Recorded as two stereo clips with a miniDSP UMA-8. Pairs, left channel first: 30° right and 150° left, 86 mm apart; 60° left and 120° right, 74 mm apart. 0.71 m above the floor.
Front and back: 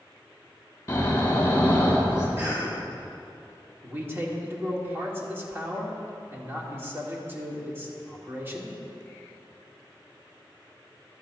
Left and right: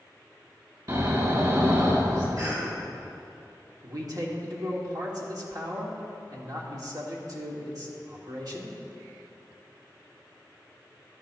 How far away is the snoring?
About 2.5 m.